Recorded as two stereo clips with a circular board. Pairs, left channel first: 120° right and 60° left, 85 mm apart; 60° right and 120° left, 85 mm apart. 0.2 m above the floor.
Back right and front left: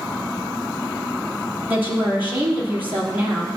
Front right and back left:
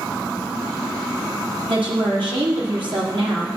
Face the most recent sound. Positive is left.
turn(degrees=125)